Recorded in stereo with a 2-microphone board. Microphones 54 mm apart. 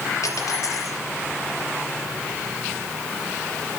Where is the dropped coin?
70° left (ahead or behind), 4.5 m.